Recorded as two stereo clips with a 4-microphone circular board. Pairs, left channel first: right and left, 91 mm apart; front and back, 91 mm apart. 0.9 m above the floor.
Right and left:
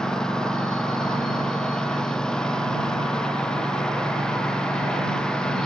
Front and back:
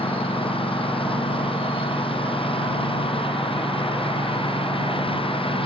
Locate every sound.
0.0 s a lawn mower: 5° right; by 5.7 s 10° right